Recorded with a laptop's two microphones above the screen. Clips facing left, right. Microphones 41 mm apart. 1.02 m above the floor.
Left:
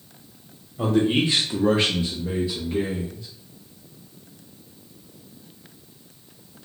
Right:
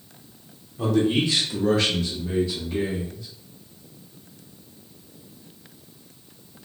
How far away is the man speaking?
About 0.9 m.